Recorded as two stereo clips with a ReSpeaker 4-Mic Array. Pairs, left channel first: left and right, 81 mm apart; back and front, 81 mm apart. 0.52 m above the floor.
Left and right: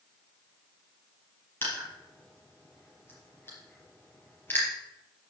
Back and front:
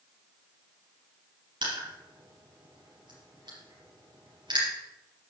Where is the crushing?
25° left, 5 m.